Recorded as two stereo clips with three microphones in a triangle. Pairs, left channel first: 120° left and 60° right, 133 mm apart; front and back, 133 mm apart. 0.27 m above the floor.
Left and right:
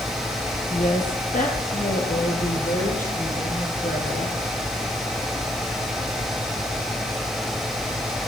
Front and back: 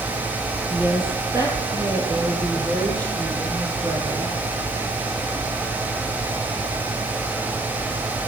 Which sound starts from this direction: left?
A woman speaking, at 0.7 s.